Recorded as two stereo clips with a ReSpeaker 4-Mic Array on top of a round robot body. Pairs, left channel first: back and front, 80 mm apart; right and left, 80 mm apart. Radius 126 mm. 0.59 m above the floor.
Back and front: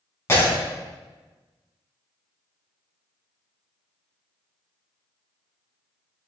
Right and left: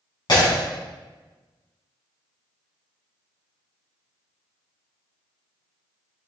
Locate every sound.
0.3 s breaking glass: 120° right, 4 m